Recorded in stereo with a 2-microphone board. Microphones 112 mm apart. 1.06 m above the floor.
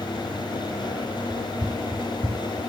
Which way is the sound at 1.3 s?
5° right (ahead or behind).